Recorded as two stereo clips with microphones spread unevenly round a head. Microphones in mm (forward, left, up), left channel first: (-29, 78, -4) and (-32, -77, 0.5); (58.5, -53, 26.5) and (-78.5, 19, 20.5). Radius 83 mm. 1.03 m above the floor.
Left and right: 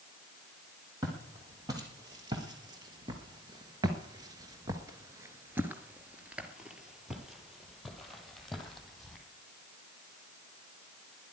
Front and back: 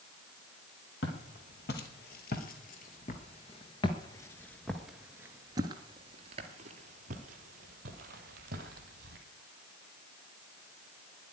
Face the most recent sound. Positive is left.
turn(degrees=175)